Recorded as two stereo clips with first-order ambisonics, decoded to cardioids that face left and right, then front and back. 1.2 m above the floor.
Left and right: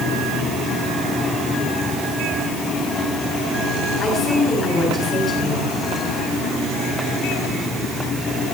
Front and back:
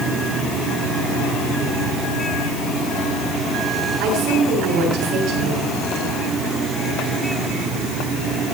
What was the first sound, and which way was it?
A woman speaking, 150° left.